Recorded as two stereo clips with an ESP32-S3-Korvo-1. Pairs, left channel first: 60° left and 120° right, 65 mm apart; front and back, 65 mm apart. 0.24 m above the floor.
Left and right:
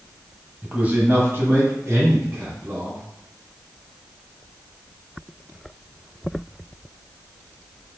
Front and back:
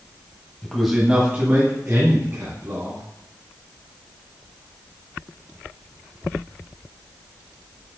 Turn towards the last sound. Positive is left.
turn(degrees=-155)